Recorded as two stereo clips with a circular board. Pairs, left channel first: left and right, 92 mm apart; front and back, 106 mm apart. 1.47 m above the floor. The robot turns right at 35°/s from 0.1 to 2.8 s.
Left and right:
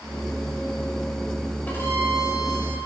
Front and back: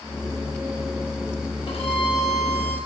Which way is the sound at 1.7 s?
20° left.